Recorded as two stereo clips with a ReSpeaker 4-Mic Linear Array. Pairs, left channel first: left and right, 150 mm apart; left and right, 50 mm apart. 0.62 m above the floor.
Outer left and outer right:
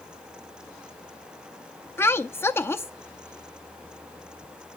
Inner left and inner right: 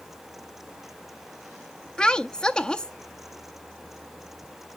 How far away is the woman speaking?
About 0.5 m.